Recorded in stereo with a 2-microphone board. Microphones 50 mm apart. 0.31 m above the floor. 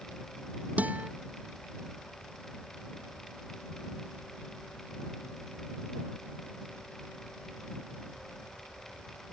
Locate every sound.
0.8 s a guitar: 30° right (ahead or behind)